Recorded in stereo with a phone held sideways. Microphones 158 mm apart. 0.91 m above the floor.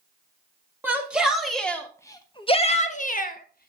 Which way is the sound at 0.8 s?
10° right (ahead or behind).